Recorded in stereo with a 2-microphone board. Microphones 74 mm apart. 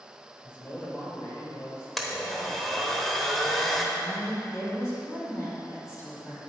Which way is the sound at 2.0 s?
5° left (ahead or behind).